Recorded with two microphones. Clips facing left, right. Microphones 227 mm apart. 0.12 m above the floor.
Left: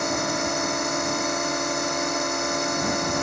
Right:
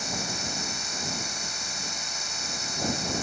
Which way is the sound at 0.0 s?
65° left (ahead or behind).